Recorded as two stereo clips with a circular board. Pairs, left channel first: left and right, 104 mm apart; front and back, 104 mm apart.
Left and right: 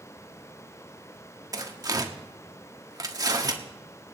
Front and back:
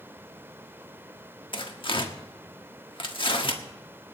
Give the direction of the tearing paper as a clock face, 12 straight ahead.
1 o'clock.